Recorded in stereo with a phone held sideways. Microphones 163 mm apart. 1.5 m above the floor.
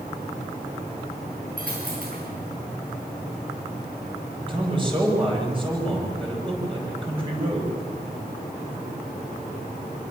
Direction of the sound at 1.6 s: 65° right (ahead or behind).